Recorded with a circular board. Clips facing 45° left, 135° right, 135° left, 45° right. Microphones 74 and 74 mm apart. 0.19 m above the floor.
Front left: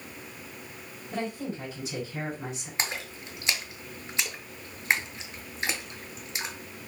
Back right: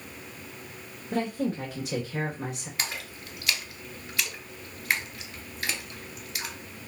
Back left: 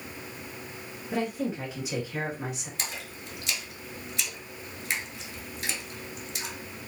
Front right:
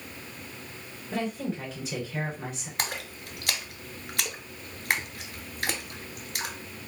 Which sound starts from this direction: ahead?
A splash, at 2.8 s.